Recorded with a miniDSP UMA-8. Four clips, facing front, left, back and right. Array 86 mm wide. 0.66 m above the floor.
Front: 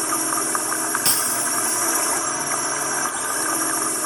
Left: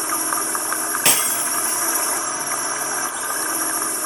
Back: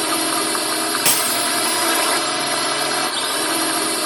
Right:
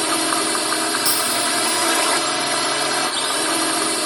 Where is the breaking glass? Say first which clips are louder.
Right 2 dB, back 5 dB; 120° left.